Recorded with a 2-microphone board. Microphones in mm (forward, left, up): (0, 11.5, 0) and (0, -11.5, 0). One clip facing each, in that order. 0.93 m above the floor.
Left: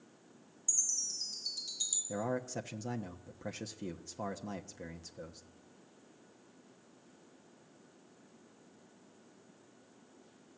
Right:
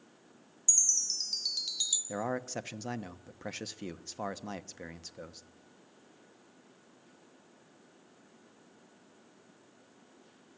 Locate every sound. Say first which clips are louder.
0.7 s a chime: right 6 dB; 80° right, 1.6 m
2.1 s a man speaking: right 2 dB; 40° right (ahead or behind), 0.9 m